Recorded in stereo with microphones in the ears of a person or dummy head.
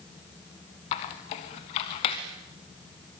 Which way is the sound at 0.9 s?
25° left (ahead or behind).